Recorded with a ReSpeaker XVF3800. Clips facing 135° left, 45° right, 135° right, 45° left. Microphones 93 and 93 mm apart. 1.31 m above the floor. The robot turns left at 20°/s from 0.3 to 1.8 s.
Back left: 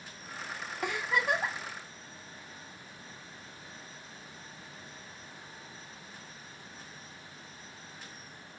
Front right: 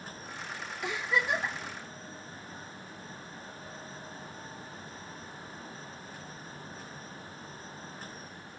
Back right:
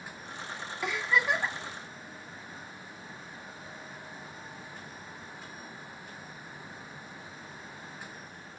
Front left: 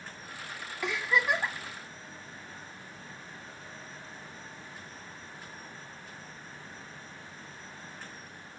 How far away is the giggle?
About 1.1 m.